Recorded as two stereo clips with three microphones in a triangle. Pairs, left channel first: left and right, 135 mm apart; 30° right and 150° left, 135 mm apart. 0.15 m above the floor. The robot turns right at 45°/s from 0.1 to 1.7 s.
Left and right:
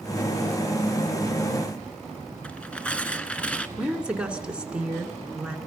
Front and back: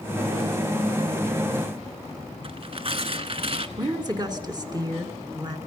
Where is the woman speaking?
170° right, 2.0 m.